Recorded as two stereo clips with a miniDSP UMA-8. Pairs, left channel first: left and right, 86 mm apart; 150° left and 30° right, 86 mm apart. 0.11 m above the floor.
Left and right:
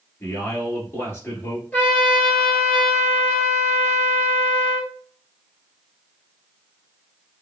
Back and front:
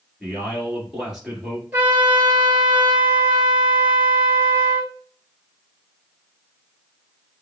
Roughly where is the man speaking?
Ahead left.